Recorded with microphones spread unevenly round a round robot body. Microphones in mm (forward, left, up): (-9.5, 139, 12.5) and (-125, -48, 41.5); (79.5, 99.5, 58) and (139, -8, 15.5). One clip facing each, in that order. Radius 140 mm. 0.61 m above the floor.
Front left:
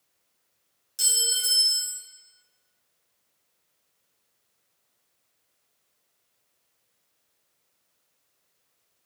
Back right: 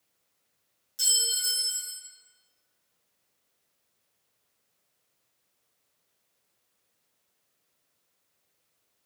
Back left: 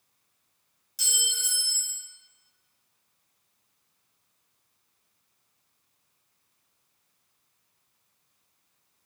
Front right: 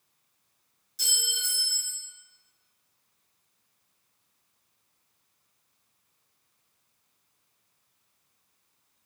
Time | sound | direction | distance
1.0 | a clink | 115° left | 1.2 m